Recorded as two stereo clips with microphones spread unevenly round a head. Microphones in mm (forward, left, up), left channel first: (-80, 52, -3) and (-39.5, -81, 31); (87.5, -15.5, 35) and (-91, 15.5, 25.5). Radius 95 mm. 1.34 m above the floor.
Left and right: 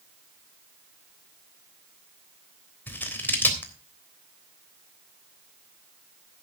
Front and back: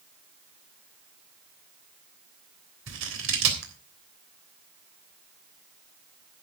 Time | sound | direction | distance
2.9 | scissors | 175° right | 3.5 m